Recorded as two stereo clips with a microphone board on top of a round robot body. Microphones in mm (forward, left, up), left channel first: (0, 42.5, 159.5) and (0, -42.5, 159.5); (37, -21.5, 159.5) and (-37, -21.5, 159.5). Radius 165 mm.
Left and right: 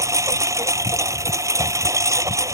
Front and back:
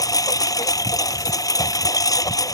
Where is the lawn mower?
35° right.